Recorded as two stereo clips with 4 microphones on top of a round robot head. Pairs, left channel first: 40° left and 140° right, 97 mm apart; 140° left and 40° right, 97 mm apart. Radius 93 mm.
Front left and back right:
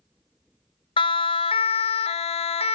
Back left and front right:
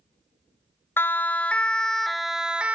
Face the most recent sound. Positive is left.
turn(degrees=35)